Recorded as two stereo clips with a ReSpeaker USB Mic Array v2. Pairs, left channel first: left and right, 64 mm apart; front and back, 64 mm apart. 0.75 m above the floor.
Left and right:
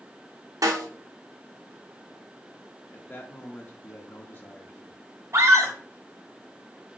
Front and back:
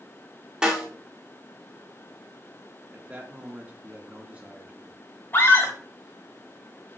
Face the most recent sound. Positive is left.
turn(degrees=-55)